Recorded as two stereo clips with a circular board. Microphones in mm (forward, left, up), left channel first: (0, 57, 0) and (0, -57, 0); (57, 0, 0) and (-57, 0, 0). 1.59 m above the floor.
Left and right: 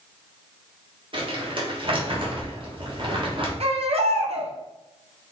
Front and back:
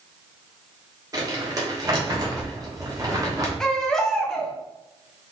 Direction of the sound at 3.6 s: 85° right.